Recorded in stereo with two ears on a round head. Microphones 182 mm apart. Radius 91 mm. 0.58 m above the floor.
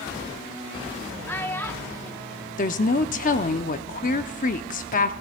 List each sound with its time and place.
1.3 s a child speaking: 10° left (ahead or behind), 0.9 m
2.6 s a woman speaking: 40° left (ahead or behind), 0.8 m